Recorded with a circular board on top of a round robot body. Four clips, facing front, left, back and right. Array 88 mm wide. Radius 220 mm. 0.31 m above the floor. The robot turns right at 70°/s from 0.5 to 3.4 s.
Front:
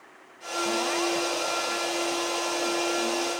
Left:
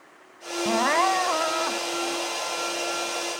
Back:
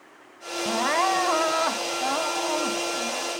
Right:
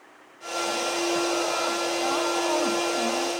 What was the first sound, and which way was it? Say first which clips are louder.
Crying: left 6 dB, back 5 dB; 100° left.